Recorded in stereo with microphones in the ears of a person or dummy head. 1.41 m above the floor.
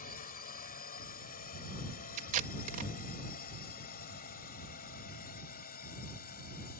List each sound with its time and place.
0.0 s a drone: 45° left (ahead or behind)
2.2 s tape being pulled: 45° right (ahead or behind)